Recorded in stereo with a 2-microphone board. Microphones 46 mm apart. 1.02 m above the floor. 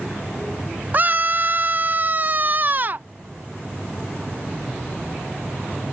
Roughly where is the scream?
Right.